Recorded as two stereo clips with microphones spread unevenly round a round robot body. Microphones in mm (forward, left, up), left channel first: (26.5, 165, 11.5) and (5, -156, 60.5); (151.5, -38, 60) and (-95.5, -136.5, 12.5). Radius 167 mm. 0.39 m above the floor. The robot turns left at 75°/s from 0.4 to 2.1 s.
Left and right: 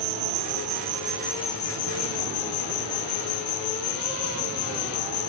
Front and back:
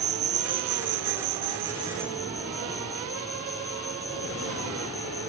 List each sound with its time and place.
0.0 s an insect: 120° right; by 5.3 s 110° left